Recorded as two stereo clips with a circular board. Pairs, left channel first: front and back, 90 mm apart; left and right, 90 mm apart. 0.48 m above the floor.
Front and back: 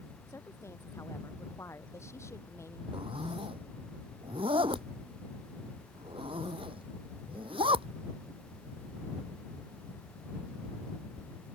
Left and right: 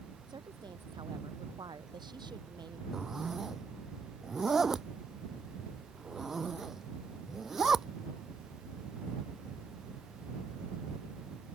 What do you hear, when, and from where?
0.3 s a woman speaking: 60° right
2.9 s a zipper: 175° right